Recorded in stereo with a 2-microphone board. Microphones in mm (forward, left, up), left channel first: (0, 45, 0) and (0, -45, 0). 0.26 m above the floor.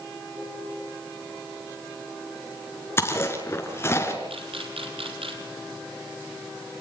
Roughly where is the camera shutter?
Right.